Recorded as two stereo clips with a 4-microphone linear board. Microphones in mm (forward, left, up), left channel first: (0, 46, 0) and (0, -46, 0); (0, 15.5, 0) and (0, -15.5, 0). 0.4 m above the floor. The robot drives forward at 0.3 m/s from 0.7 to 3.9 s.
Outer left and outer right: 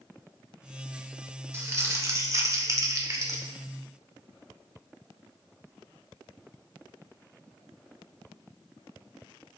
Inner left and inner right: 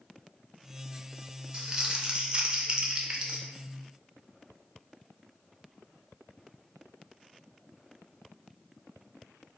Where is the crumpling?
30° right (ahead or behind), 0.6 m; by 3.4 s 35° right (ahead or behind), 0.5 m.